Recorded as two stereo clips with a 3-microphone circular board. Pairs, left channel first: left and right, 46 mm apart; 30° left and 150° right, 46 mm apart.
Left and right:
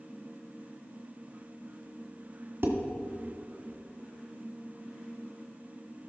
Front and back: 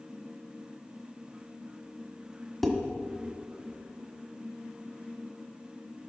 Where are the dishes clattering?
55° right, 1.5 m.